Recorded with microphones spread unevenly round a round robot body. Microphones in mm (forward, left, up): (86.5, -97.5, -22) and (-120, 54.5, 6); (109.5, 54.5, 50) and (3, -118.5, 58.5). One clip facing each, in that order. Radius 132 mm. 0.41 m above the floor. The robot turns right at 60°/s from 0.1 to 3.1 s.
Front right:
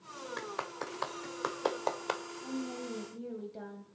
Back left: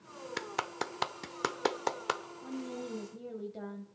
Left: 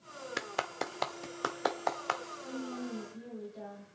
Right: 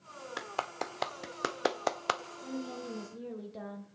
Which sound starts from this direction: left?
A clap, at 0.4 s.